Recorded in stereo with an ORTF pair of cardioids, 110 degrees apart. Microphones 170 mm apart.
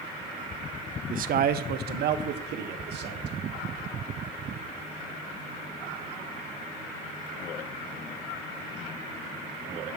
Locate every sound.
1.1 s a man speaking: 50° right, 0.8 m; by 3.4 s 75° right, 2.5 m